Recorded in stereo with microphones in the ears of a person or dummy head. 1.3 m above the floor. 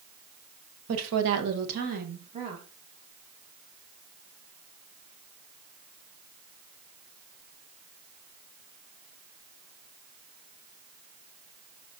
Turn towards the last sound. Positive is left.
turn(degrees=-35)  # may be behind; listen again after turning